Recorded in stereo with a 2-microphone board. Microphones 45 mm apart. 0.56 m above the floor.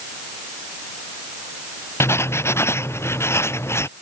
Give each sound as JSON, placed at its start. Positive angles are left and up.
{"t": 2.0, "sound": "writing", "side_deg": 70}